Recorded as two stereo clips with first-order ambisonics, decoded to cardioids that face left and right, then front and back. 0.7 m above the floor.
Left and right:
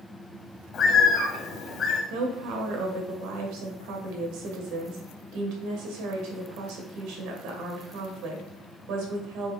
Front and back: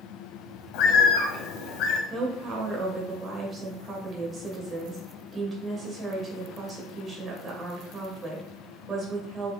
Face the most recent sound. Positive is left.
turn(degrees=-110)